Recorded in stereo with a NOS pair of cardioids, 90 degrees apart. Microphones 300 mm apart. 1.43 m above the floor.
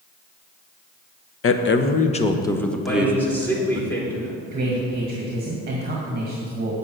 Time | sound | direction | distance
1.4 | a man speaking | 50° left | 1.0 m
2.9 | a man speaking | 5° left | 3.5 m
4.5 | a man speaking | 30° right | 1.9 m